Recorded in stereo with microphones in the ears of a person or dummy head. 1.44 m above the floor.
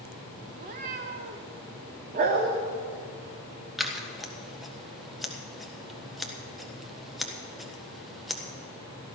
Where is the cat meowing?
25° right (ahead or behind), 0.7 m.